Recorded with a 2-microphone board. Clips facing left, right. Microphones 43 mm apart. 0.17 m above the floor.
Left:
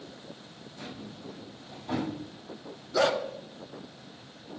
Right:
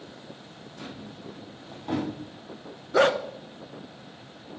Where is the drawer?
45° right (ahead or behind), 4.5 m.